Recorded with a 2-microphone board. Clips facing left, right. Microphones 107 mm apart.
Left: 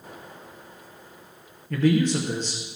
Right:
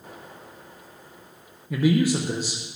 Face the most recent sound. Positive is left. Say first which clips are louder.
# even
turn(degrees=-10)  # may be behind; listen again after turning